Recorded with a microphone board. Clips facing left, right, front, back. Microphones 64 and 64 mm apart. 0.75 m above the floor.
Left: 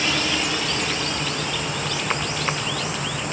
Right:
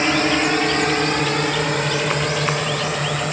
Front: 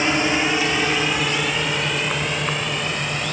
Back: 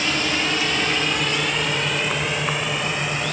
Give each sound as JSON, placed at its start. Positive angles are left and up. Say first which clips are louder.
{"t": 0.0, "sound": "a drone", "louder": "right 6 dB, front 3 dB", "azimuth_deg": -55}